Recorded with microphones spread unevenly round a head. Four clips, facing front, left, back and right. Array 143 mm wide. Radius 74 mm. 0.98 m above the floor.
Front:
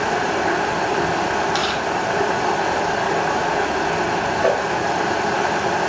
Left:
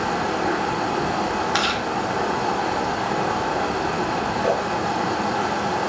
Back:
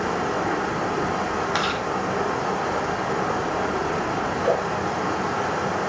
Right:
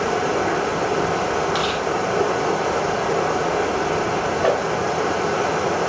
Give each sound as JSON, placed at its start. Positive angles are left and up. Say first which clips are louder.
{"t": 0.0, "sound": "running water", "louder": "right 2 dB, front 4 dB", "azimuth_deg": -5, "distance_m": 8.0}
{"t": 1.5, "sound": "chewing", "louder": "right 1 dB, front 3 dB", "azimuth_deg": 95, "distance_m": 4.0}
{"t": 4.4, "sound": "a whoosh", "louder": "right 3 dB, front 3 dB", "azimuth_deg": -40, "distance_m": 3.0}